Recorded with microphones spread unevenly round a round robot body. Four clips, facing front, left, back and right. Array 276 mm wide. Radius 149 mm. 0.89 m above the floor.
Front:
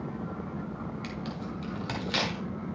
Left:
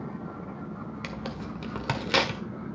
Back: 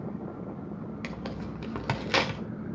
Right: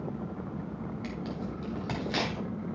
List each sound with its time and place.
1.0 s tearing paper: 115° left, 1.9 m